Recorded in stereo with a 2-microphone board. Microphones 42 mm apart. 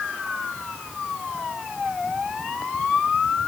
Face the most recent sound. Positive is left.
No sound to turn to.